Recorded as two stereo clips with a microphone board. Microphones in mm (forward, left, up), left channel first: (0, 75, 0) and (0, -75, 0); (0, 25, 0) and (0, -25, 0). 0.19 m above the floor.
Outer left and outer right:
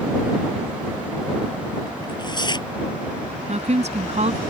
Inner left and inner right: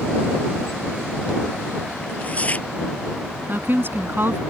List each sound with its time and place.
2.0 s tearing paper: 30° left (ahead or behind)
3.5 s a woman speaking: 50° right (ahead or behind)